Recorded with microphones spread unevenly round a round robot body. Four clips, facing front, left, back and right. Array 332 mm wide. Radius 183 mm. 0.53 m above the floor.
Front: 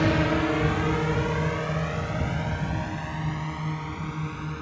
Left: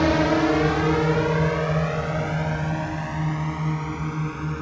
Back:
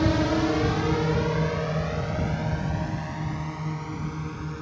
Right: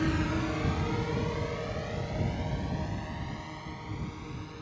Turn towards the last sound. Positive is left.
turn(degrees=75)